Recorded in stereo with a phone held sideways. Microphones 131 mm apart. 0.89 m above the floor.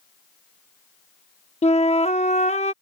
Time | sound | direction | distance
1.6 | a flute | 55° left (ahead or behind) | ?